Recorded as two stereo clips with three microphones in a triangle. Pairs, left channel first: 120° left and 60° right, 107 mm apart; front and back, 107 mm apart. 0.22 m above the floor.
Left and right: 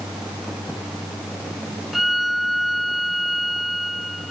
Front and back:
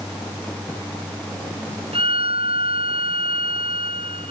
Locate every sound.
1.9 s a violin: 150° right